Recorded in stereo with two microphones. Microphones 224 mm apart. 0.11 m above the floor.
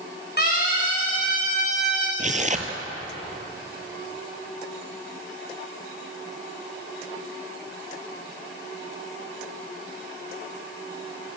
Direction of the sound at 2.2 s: 35° right (ahead or behind).